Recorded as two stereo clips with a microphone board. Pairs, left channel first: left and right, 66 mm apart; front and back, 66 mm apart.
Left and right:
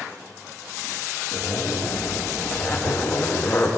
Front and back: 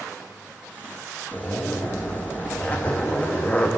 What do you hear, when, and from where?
1.3 s a zipper: 55° left, 0.8 m